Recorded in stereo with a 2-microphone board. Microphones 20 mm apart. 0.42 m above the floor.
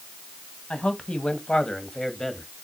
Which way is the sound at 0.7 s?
65° left (ahead or behind).